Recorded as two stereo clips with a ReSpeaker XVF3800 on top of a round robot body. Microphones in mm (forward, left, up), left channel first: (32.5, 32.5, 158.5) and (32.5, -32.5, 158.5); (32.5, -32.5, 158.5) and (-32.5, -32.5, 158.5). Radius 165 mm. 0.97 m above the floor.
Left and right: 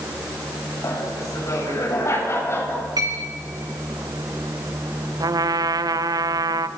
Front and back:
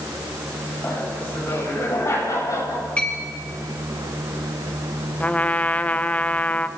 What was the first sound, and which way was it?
Laughter, 60° left.